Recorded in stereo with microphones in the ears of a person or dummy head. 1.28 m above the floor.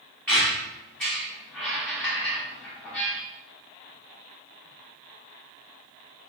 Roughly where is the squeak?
Centre.